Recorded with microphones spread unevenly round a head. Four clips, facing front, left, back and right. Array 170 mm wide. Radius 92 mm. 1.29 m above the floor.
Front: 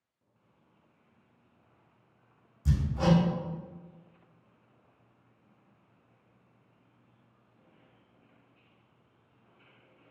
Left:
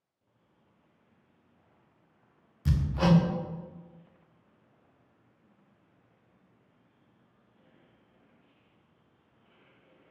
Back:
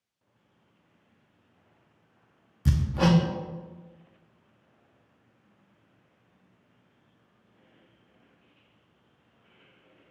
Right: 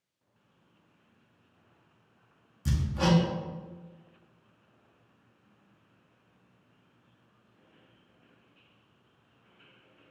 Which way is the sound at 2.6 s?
Straight behind.